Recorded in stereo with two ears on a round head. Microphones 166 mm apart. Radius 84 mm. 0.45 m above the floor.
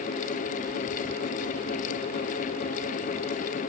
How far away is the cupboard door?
No cupboard door in this recording.